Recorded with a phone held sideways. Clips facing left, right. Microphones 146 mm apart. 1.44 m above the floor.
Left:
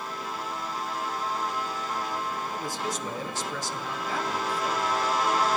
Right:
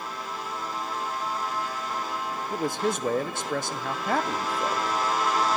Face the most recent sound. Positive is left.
turn(degrees=-70)  # may be behind; listen again after turning